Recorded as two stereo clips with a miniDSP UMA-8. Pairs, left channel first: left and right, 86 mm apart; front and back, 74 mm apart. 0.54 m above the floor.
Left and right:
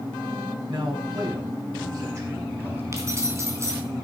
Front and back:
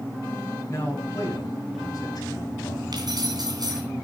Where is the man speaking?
55° right, 5 m; by 2.8 s 25° right, 4 m.